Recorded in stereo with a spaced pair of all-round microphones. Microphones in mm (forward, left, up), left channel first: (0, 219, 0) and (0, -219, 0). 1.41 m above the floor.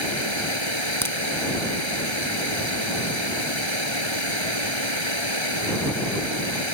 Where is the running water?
80° right.